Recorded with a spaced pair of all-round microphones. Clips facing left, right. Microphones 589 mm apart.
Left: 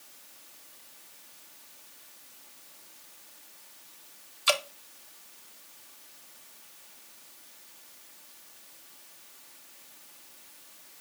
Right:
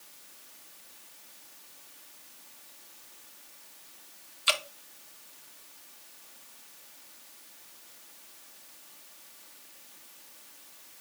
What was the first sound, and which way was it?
Dripping, 65° left (ahead or behind).